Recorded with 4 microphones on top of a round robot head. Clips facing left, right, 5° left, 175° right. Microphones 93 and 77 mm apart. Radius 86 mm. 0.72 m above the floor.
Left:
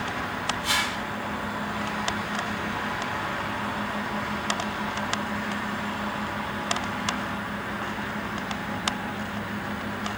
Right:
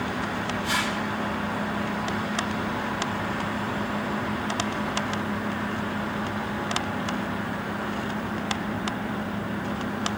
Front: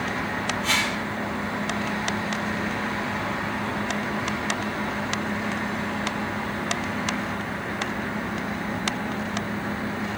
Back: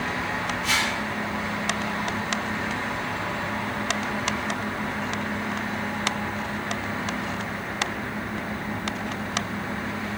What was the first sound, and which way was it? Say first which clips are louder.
A whoosh: right 1 dB, even; 100° left.